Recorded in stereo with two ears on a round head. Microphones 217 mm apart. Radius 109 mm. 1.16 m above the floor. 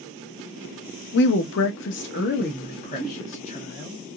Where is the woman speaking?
45° left (ahead or behind), 0.6 m; by 4.0 s 25° left (ahead or behind), 1.7 m.